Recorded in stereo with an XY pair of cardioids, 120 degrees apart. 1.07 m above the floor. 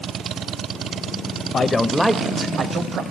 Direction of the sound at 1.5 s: 35° left.